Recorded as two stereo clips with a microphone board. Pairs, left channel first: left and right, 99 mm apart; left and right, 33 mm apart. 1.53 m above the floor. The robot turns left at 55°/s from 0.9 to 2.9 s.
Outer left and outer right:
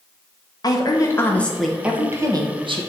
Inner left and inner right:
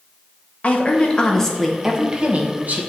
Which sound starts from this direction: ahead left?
A woman speaking, at 0.6 s.